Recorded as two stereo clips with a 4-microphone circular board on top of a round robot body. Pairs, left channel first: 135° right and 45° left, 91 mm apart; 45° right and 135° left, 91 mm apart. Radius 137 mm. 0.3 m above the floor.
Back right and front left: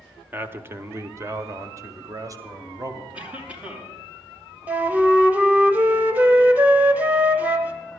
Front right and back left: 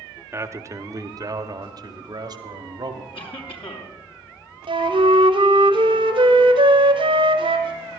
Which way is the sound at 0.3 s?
100° left.